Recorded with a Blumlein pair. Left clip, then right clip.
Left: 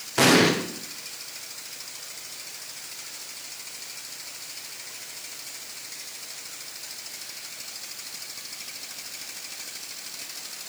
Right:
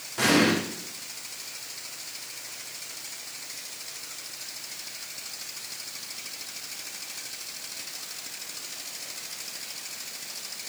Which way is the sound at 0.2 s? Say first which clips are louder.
Left 4 dB; 60° left.